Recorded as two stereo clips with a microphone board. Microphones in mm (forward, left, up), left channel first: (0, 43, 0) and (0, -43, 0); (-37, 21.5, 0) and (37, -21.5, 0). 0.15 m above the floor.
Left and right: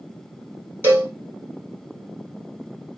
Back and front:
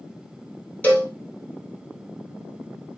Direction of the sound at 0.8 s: 145° right.